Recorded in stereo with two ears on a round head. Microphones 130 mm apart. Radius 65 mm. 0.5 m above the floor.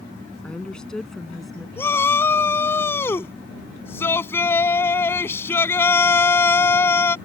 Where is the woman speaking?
10° left (ahead or behind); by 1.7 s centre (ahead or behind).